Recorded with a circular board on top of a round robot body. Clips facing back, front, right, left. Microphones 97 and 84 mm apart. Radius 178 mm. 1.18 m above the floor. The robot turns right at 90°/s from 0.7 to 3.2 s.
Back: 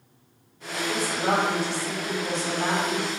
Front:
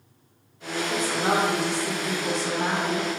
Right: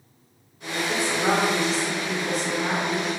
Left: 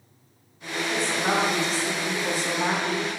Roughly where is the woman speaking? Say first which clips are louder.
Even, right 2 dB; ahead right.